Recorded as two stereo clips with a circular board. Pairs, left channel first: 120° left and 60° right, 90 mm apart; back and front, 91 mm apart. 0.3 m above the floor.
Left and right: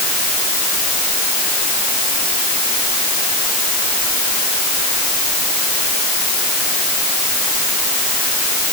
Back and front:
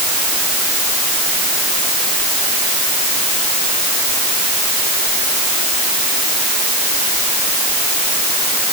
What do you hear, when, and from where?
Only background noise.